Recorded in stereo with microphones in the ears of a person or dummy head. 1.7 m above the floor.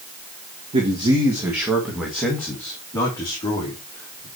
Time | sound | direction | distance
0.7 | a man speaking | 30° right (ahead or behind) | 1.7 m